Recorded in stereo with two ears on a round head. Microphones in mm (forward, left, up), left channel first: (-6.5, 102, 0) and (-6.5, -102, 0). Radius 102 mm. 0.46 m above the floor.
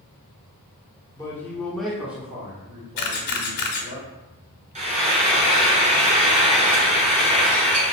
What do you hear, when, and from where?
1.2 s a man speaking: 15° left (ahead or behind), 1.0 m; by 4.0 s 20° right (ahead or behind), 2.0 m
3.0 s a camera shutter: 75° left (ahead or behind), 1.0 m
4.8 s frying: 30° right (ahead or behind), 0.9 m